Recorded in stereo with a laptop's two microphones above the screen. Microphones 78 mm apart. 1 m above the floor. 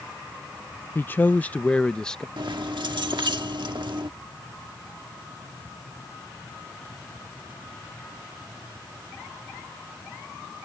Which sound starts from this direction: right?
Keys jangling, at 2.4 s.